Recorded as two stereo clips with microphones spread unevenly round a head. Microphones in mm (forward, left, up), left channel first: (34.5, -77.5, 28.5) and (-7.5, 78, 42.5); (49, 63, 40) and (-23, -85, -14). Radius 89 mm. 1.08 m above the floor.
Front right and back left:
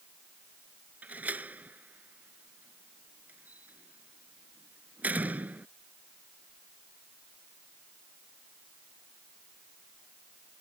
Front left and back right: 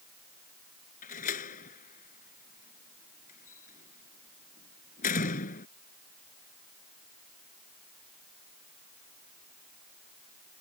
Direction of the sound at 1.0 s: 25° left.